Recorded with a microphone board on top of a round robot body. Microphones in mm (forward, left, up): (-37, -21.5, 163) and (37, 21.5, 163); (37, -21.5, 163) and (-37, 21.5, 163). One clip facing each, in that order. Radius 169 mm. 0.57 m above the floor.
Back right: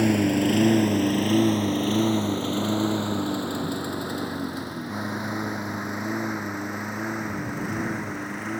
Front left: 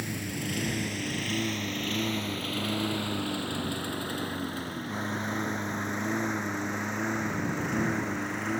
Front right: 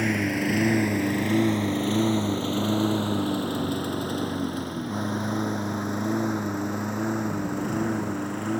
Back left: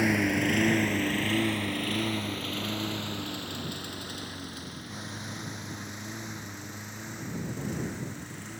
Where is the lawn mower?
125° right; by 8.6 s 65° right.